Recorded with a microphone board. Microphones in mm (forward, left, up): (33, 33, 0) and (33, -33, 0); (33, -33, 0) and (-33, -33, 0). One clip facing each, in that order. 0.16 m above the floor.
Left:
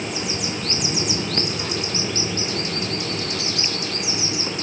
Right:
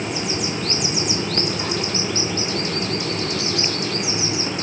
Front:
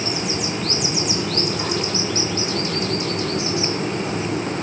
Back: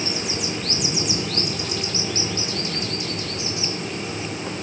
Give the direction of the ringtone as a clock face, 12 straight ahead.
No ringtone in this recording.